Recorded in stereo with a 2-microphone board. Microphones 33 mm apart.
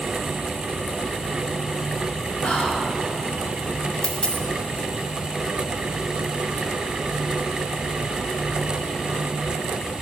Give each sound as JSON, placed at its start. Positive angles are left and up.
{"t": 2.4, "sound": "whispering", "side_deg": 30, "distance_m": 3.0}
{"t": 4.0, "sound": "a dropped coin", "side_deg": 35, "distance_m": 1.0}